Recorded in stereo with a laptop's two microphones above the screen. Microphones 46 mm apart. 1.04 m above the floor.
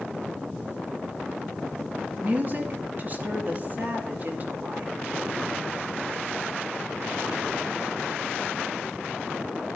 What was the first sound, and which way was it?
A woman speaking, 40° right (ahead or behind).